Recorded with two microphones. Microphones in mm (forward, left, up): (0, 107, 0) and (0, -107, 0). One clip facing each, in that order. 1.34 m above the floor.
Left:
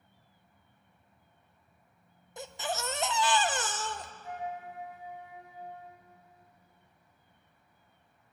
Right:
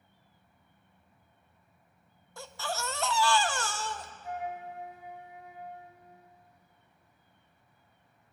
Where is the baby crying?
20° left (ahead or behind), 0.7 m.